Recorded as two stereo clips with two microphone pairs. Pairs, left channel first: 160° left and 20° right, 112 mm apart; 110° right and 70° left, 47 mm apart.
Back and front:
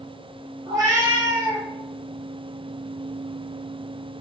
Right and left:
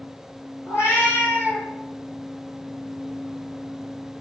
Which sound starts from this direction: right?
A cat meowing, at 0.7 s.